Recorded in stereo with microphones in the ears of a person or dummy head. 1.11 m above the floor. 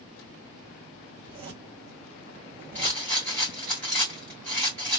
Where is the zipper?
25° right (ahead or behind), 1.3 m.